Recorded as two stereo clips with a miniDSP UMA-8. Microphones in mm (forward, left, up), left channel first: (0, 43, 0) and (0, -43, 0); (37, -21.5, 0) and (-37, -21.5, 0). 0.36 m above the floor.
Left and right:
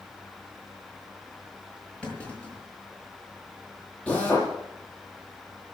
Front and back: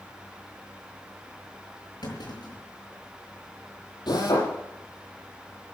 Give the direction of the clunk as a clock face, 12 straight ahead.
12 o'clock.